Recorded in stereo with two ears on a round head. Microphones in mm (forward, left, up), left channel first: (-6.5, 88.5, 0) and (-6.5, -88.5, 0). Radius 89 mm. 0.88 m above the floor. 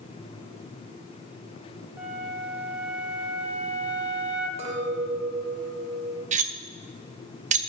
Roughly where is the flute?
Centre.